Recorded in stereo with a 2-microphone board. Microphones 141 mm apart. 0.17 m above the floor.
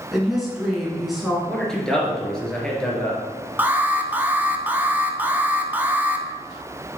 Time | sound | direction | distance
0.1 | a woman speaking | centre (ahead or behind) | 1.6 m
1.5 | a man speaking | 5° left (ahead or behind) | 2.5 m
3.6 | an alarm | 15° right (ahead or behind) | 0.7 m